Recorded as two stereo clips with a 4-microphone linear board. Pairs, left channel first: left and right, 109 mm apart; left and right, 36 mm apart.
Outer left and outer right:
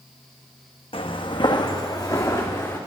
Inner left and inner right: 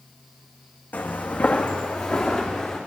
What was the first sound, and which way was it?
Footsteps, 55° left (ahead or behind).